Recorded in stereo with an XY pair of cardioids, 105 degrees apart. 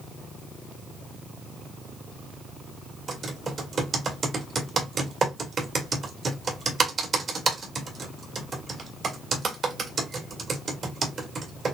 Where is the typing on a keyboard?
45° right, 1.6 m.